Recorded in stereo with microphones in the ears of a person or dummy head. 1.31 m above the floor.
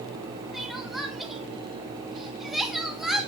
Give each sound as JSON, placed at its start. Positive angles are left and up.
{"t": 0.5, "sound": "crying", "side_deg": 0, "distance_m": 1.7}